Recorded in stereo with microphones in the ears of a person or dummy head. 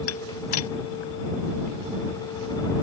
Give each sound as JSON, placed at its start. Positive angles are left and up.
{"t": 0.1, "sound": "dishes clattering", "side_deg": 80}